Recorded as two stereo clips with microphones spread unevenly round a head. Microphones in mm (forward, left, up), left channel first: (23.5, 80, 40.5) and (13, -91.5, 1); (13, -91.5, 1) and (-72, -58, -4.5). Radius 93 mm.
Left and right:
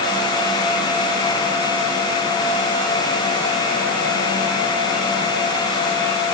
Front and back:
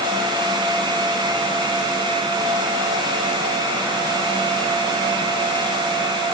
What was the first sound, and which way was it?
Only background noise.